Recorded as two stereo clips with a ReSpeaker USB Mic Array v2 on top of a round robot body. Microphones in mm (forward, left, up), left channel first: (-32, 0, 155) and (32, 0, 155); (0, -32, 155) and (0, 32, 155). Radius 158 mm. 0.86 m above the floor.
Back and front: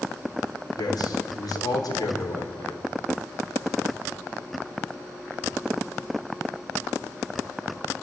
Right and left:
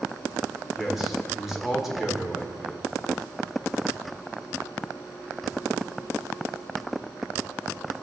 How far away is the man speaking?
About 4 m.